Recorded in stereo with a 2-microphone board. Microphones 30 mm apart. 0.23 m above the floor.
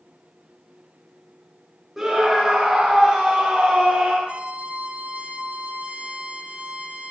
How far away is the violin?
About 1.7 m.